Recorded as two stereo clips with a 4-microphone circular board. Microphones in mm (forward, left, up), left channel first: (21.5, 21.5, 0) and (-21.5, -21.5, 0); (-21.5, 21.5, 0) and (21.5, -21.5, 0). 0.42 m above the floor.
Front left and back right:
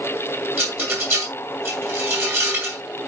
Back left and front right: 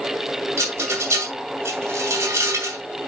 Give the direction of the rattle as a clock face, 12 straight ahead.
3 o'clock.